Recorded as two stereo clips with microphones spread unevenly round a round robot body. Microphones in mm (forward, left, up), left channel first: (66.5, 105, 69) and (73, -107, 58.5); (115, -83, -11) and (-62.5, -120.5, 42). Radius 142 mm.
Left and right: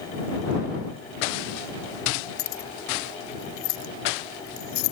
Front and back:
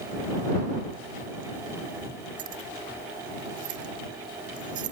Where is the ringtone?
I don't hear a ringtone.